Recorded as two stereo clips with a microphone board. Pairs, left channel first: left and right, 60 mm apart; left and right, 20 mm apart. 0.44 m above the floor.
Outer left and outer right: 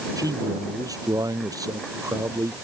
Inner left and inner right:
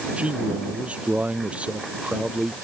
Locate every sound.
0.2 s a man speaking: 75° right (ahead or behind); by 2.5 s 70° right (ahead or behind)